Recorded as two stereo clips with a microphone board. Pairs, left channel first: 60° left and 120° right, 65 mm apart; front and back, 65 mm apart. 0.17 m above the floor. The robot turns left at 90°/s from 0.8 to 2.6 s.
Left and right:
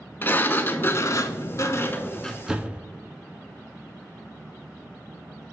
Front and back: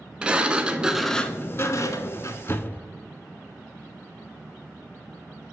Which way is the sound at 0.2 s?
110° left.